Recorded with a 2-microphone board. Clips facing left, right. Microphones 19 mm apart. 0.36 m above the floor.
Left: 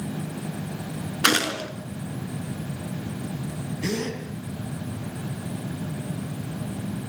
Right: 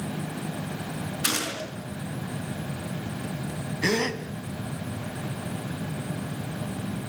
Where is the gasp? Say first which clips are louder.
Right 4 dB; 45° right (ahead or behind), 2.5 m.